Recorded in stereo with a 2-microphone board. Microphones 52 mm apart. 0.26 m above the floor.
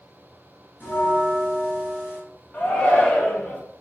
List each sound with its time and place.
0.8 s a bell: 40° left (ahead or behind), 2.0 m
2.5 s a shout: 25° left (ahead or behind), 1.0 m